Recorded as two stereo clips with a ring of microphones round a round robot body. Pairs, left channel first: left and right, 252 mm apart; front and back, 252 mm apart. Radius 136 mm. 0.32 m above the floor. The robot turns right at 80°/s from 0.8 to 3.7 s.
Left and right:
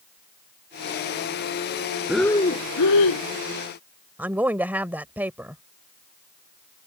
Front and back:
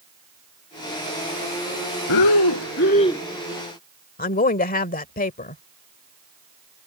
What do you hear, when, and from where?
2.1 s breathing: 5° right; by 3.2 s 85° left
4.2 s a woman speaking: 10° right